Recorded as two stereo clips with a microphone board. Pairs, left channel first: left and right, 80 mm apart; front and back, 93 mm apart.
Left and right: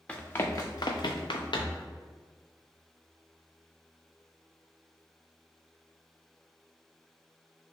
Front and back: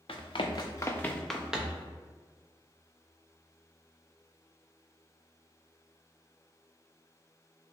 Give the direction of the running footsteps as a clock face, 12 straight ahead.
11 o'clock.